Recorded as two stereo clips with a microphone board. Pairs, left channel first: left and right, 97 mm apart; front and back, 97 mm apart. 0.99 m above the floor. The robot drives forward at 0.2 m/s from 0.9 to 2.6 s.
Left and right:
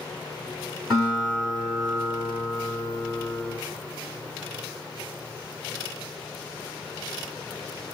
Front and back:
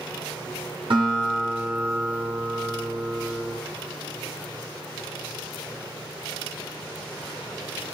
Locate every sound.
0.9 s a guitar: straight behind, 1.9 m